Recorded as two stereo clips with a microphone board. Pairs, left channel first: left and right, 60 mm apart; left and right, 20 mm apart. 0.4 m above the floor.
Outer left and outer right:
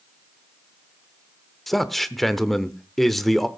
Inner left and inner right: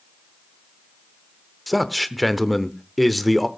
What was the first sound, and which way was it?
A man speaking, centre (ahead or behind).